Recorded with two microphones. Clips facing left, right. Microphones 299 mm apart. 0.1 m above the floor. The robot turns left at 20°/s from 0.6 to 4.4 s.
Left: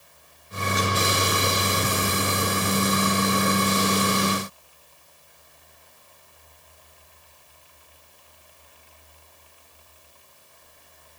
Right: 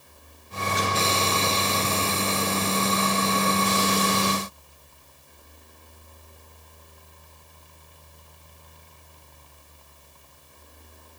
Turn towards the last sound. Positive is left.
No sound to turn to.